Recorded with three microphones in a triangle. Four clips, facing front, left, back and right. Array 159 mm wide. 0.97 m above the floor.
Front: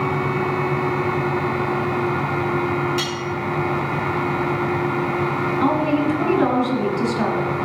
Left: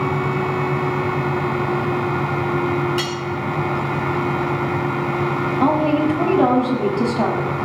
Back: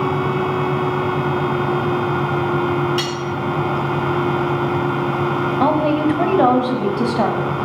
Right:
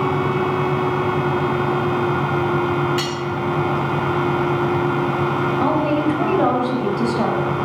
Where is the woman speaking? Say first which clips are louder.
Left 3 dB, back 3 dB; straight behind, 5 m.